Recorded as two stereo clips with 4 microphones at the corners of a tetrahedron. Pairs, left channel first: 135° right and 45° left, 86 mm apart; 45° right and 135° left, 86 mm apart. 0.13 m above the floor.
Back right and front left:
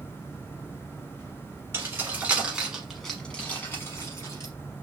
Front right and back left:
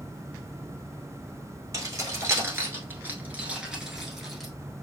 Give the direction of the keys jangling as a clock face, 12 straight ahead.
9 o'clock.